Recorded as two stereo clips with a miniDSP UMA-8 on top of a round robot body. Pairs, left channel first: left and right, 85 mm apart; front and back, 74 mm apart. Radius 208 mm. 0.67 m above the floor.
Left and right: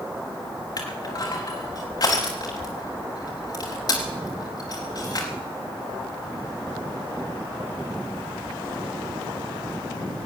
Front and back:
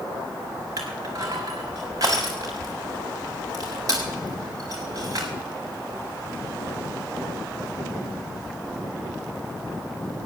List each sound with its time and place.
0.8 s crushing: 135° left, 0.9 m